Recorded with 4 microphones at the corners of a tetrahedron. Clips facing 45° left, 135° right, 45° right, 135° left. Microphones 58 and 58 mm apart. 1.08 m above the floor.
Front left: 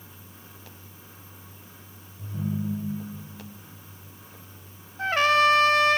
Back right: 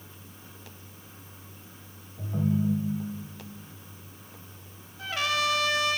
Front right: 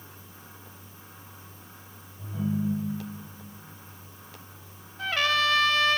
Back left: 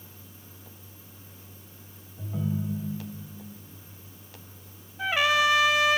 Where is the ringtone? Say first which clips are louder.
Back right 4 dB, front right 2 dB; 160° right, 3.5 m.